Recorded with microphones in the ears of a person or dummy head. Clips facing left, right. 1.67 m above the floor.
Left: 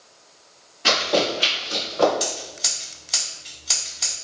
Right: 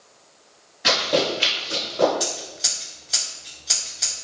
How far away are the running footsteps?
About 1.8 m.